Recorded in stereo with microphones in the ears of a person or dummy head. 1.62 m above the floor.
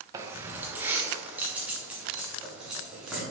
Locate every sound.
0.1 s keys jangling: 25° right (ahead or behind), 1.0 m; by 3.2 s 5° right (ahead or behind), 3 m